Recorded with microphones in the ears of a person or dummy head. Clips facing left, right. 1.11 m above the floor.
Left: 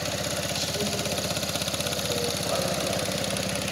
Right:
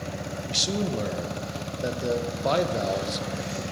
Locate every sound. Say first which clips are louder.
0.5 s a man speaking: right 2 dB; 65° right (ahead or behind), 0.5 m